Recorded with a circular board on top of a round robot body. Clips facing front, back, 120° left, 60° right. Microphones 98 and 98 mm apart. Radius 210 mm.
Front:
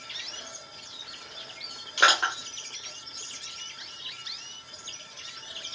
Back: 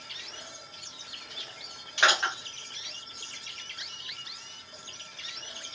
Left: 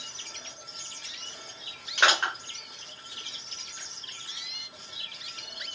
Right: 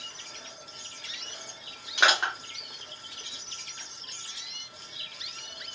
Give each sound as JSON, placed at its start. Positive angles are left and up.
{"t": 2.0, "sound": "crushing", "azimuth_deg": 20, "distance_m": 0.7}